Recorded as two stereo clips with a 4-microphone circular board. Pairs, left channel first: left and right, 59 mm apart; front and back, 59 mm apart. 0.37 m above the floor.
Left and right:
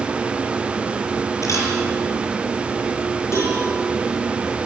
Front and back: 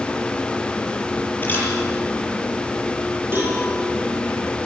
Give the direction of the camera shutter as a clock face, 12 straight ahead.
10 o'clock.